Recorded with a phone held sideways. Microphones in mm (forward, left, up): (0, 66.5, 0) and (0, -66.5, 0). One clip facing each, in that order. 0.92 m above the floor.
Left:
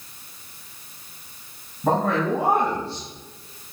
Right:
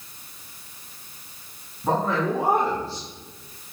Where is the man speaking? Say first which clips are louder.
Left 2 dB; 75° left (ahead or behind), 6.5 m; by 3.0 s 85° left, 7 m.